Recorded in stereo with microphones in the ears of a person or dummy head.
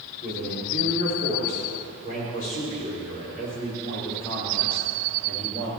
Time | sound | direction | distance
0.2 | a man speaking | 55° left (ahead or behind) | 6 m